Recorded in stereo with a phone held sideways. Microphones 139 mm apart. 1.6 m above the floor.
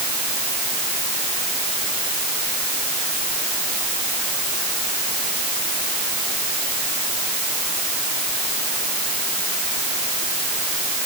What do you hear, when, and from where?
Only background noise.